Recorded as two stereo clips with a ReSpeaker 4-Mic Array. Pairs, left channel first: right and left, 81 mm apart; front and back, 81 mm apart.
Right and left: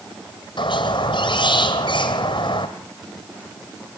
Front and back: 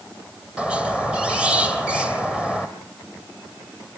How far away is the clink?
No clink in this recording.